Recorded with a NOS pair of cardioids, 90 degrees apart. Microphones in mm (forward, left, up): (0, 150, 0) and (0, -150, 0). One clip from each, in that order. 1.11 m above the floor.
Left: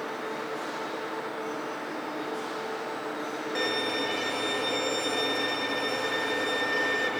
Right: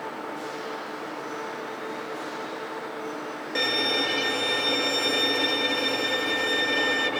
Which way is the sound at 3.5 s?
30° right.